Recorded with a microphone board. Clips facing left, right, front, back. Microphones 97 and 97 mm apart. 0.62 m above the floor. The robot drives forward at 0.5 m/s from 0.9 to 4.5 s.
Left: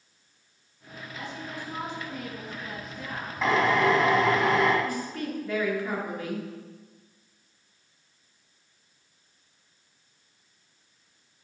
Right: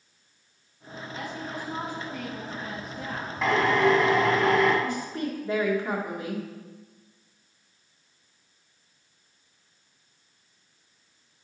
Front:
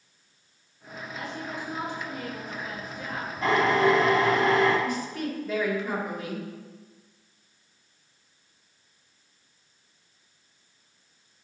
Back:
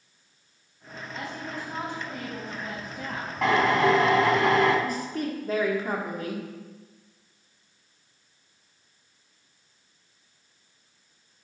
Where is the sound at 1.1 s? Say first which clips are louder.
Right 2 dB, even; 130° right, 4 m; by 3.3 s 140° right, 4.5 m.